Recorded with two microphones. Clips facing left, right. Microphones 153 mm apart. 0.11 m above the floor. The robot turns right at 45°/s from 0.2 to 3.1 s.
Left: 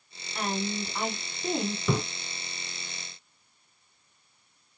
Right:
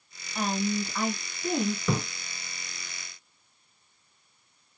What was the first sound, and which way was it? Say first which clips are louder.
A woman speaking: right 3 dB; straight ahead.